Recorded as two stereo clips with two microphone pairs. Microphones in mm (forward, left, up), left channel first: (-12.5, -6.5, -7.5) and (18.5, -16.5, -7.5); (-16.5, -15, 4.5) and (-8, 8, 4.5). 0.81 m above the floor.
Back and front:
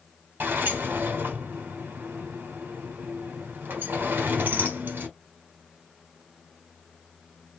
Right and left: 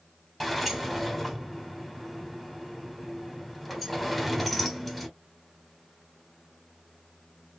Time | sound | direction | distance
0.4 | a sliding door | 20° right | 1.3 m